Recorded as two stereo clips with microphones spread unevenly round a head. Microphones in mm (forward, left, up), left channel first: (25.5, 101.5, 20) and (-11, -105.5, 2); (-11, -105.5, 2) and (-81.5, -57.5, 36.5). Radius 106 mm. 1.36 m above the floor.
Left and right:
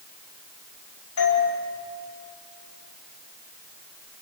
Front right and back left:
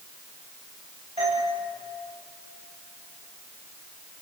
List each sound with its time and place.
1.2 s a doorbell: 85° left, 5 m